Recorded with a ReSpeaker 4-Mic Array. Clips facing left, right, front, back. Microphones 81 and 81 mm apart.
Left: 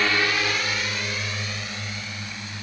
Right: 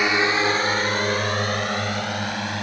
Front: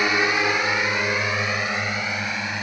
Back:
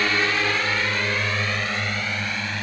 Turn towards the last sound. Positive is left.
turn(degrees=-80)